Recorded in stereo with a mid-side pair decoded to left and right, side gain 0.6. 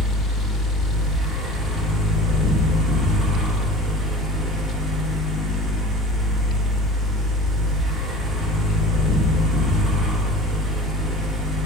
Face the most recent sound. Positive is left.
turn(degrees=-30)